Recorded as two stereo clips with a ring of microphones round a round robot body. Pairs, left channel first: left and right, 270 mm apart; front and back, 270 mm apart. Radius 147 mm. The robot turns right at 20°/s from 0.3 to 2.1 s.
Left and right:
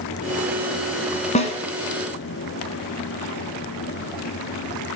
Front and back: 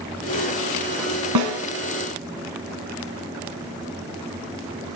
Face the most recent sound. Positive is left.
turn(degrees=170)